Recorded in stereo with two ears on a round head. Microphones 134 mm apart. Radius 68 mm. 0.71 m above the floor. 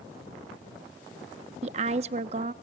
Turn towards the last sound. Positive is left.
turn(degrees=-45)  # may be behind; listen again after turning